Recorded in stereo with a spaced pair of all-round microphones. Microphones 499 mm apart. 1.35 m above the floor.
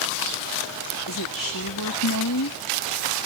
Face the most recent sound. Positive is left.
turn(degrees=40)  # may be behind; listen again after turning